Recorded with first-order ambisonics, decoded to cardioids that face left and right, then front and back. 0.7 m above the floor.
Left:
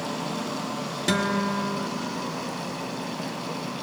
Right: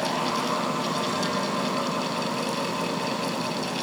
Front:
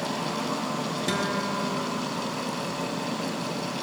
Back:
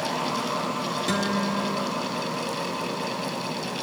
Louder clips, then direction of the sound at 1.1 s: Left 1 dB, even; 85° left.